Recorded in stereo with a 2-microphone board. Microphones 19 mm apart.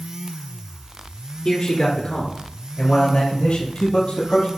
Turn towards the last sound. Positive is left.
turn(degrees=70)  # may be behind; listen again after turning